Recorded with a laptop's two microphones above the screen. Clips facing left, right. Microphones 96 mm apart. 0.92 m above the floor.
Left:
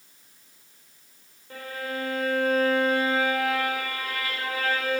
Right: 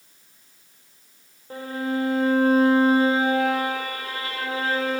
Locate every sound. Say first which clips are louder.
1.5 s a violin: right 6 dB; 30° right (ahead or behind), 3.5 m